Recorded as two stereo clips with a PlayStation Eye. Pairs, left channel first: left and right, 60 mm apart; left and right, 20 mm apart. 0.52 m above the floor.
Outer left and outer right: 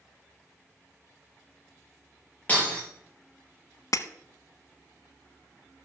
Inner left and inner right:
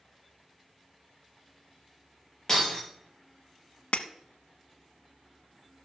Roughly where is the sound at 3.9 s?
Left.